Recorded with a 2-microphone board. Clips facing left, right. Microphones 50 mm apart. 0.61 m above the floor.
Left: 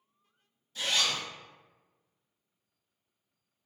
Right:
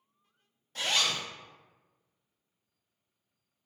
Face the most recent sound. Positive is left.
turn(degrees=-55)  # may be behind; listen again after turning